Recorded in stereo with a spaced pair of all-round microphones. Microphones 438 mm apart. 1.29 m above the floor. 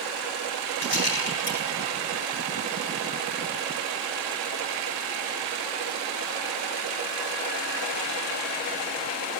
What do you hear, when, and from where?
0.8 s a rattle: 65° left (ahead or behind), 8 m